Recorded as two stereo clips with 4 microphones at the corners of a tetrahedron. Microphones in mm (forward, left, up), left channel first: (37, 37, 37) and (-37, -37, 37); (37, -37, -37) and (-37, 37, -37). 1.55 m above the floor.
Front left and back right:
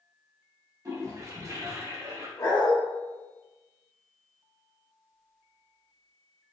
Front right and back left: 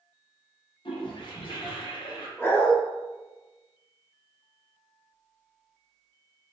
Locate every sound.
0.8 s a toilet flushing: 75° right, 1.0 m
2.4 s a dog barking: 10° left, 1.2 m